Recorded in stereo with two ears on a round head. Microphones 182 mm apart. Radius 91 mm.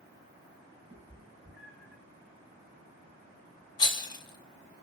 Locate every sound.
0.9 s a cat meowing: 10° right (ahead or behind), 5 m; by 2.0 s 10° left (ahead or behind), 4.5 m
3.8 s a rattle: 25° left (ahead or behind), 2.0 m